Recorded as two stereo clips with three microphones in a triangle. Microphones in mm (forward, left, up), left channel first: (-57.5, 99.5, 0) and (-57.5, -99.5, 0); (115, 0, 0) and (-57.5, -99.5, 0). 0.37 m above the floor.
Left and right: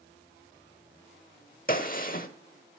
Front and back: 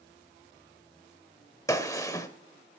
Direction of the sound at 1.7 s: 95° left.